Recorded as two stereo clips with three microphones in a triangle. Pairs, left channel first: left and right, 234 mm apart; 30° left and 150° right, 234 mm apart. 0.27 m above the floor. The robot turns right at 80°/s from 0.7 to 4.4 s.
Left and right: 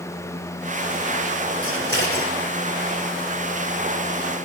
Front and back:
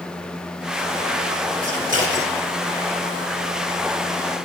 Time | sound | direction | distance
1.6 | scissors | 120° right | 2.5 m